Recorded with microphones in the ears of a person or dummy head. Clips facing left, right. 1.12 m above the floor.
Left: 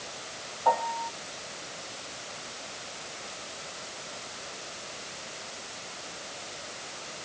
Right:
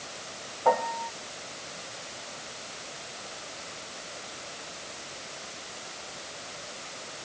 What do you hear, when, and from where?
0.7 s a piano: 45° right (ahead or behind)